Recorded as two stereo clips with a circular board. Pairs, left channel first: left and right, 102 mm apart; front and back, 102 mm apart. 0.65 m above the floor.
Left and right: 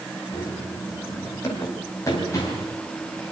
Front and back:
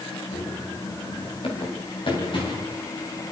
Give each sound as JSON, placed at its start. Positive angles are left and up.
{"t": 0.3, "sound": "running footsteps", "azimuth_deg": 25, "distance_m": 7.0}